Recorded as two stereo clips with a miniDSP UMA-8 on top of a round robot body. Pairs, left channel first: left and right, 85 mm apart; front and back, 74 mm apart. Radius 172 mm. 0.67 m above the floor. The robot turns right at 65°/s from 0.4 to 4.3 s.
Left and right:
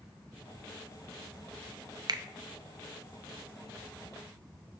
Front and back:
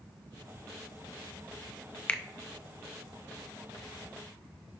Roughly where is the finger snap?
Right.